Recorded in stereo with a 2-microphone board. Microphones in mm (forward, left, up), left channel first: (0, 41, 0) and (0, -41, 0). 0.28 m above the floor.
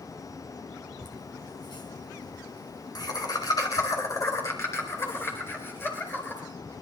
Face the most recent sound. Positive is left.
turn(degrees=25)  # may be behind; listen again after turning